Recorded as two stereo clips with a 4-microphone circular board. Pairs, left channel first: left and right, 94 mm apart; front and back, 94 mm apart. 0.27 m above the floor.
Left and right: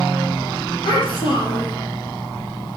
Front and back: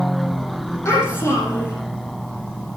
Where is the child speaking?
60° left, 7.5 m.